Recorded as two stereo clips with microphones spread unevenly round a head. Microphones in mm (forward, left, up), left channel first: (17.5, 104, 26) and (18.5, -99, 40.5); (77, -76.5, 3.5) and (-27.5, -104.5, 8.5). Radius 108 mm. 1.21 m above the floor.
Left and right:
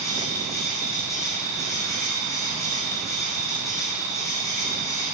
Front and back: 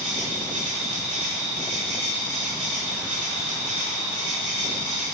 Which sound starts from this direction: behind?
An insect, at 0.0 s.